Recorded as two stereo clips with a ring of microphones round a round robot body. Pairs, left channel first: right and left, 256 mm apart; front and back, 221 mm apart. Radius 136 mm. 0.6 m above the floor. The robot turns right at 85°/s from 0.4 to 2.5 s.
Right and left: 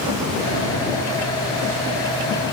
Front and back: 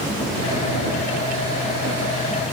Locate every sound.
Only background noise.